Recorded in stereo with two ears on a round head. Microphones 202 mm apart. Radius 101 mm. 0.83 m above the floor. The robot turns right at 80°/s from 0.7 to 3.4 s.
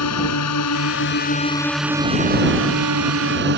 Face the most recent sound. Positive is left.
turn(degrees=-50)